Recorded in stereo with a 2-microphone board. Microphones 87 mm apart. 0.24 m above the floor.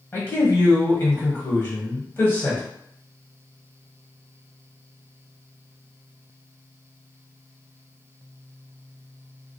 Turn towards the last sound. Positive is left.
turn(degrees=25)  # may be behind; listen again after turning